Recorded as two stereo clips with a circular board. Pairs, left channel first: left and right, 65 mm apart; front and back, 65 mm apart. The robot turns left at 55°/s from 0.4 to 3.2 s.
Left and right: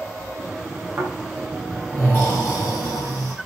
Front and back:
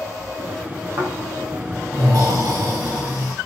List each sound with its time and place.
1.0 s snoring: 145° right, 6.5 m; by 3.3 s 95° left, 6.5 m